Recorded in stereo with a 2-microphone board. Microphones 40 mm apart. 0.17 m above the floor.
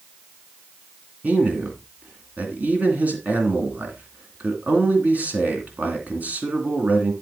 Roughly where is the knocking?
I don't hear knocking.